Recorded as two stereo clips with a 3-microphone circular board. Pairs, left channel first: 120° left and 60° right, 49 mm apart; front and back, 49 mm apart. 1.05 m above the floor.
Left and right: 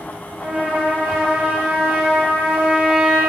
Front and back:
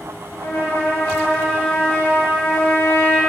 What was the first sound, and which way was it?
A trumpet, 10° left.